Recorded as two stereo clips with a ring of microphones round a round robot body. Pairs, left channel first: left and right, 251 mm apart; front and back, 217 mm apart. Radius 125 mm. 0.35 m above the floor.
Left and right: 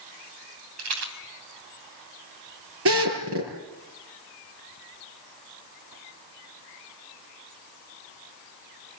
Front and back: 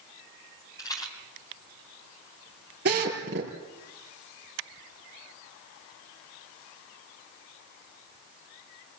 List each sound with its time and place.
0.8 s a rattle: 75° right, 3 m
2.9 s a drill: 130° right, 6 m